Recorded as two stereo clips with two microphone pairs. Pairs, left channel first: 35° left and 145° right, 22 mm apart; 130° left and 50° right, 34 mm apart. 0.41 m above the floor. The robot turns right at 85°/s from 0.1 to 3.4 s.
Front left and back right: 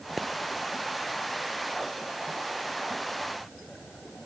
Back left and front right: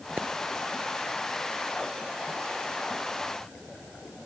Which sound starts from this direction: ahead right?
A pop, at 0.2 s.